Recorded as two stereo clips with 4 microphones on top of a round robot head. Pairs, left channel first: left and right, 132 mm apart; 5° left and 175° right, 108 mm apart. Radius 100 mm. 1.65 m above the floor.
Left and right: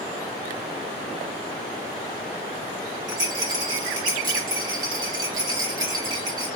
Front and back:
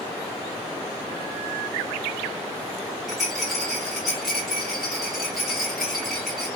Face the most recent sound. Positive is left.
turn(degrees=-85)